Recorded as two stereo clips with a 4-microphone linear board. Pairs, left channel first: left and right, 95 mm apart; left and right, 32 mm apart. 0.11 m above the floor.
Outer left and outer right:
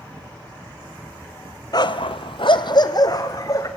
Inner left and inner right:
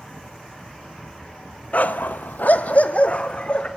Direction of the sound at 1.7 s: 45° left (ahead or behind).